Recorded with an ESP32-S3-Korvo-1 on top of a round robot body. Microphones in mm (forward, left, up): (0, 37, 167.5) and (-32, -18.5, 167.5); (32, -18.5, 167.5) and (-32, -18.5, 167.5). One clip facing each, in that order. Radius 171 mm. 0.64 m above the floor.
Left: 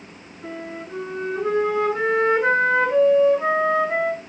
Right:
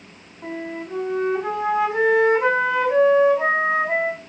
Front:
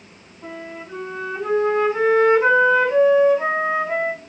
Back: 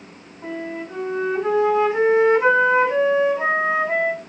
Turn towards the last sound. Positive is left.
turn(degrees=-110)